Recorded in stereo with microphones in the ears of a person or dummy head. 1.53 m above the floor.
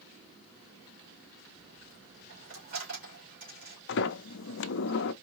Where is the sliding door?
60° left (ahead or behind), 0.5 m.